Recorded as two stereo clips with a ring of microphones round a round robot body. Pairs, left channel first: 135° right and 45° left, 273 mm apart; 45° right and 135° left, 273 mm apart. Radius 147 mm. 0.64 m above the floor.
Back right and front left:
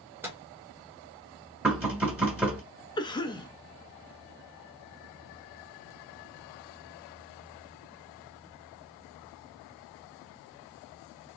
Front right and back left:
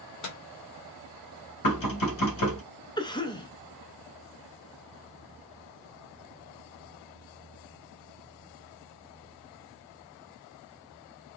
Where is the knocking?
40° right, 2 m.